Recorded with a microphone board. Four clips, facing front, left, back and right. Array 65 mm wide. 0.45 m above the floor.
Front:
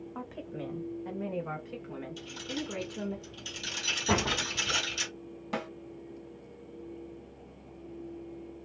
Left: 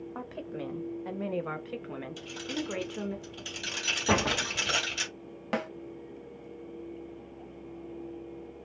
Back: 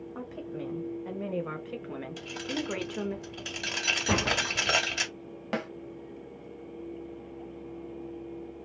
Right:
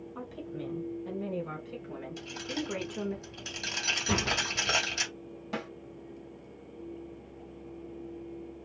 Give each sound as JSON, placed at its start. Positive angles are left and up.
{"t": 0.1, "sound": "a woman speaking", "azimuth_deg": 80, "distance_m": 1.6}
{"t": 2.2, "sound": "keys jangling", "azimuth_deg": -170, "distance_m": 1.8}
{"t": 4.1, "sound": "a door slam", "azimuth_deg": 100, "distance_m": 1.3}
{"t": 5.5, "sound": "a snare drum", "azimuth_deg": 125, "distance_m": 1.6}